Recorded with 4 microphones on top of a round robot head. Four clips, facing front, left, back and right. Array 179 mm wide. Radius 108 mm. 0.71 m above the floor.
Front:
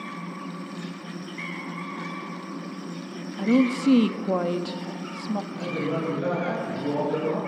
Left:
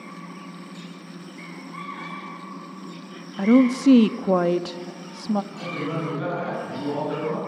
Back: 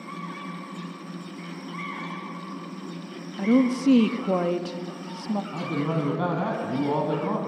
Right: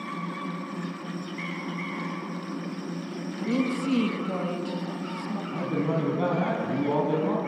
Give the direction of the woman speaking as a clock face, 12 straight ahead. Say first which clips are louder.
Left 10 dB, even; 9 o'clock.